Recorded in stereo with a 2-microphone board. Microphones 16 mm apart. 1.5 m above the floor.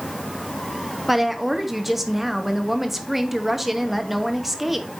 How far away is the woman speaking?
About 1.1 m.